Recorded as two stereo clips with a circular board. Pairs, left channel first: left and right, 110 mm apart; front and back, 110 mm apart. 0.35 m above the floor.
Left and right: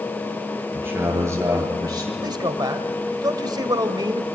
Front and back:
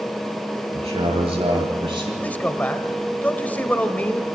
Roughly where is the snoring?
I don't hear snoring.